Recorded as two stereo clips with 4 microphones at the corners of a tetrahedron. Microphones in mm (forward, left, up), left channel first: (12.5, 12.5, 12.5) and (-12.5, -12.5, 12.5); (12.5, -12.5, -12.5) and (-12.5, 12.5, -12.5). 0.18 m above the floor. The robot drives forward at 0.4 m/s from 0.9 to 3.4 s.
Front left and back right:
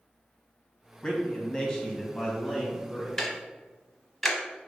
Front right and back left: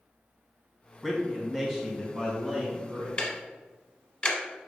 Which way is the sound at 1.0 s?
45° left.